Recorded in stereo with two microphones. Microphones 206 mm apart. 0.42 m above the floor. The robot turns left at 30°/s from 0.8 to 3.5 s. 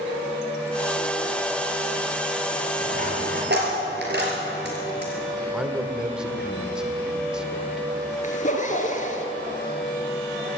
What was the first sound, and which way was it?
A dropped coin, 35° right (ahead or behind).